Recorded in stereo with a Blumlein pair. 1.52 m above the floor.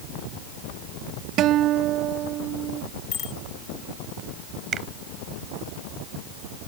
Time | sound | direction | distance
1.4 | a guitar | 35° right | ?
3.1 | a bicycle bell | 25° left | ?
4.7 | a finger snap | 25° right | ?